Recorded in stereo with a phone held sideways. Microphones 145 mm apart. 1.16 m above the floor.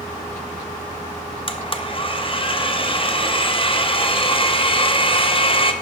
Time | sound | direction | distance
1.5 | a blender | 40° left (ahead or behind) | 0.7 m